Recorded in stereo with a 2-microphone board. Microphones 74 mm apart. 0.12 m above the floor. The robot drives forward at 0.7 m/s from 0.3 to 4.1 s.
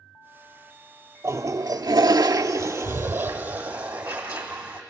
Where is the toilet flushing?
40° right (ahead or behind), 0.8 m; by 4.8 s 20° right (ahead or behind), 1.6 m.